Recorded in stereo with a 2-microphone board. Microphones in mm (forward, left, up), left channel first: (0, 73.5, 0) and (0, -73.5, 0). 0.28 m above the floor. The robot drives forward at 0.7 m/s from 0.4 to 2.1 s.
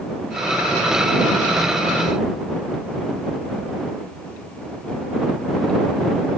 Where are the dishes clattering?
I don't hear dishes clattering.